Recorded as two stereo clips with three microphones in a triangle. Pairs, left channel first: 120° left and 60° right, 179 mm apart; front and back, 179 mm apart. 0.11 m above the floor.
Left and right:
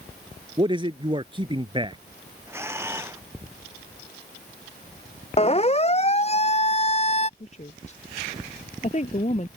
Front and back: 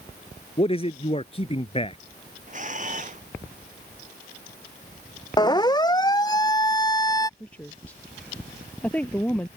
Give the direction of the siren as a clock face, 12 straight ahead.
10 o'clock.